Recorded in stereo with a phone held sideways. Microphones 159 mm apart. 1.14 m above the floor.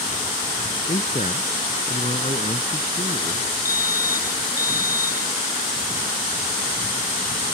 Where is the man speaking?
45° left (ahead or behind).